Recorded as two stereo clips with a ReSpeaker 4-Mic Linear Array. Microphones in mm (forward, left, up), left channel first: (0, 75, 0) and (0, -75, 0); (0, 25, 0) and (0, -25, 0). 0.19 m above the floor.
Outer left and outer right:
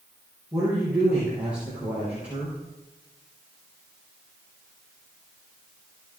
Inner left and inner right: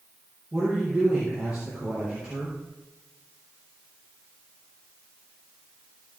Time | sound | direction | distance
0.5 | a woman speaking | 10° right (ahead or behind) | 4 m